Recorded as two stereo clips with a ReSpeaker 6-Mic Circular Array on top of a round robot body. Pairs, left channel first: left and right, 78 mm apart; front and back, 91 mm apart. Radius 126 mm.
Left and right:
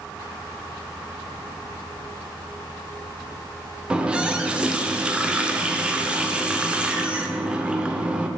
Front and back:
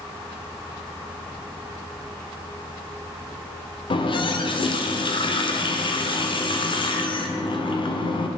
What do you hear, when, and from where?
3.9 s a running tap: 15° right, 0.8 m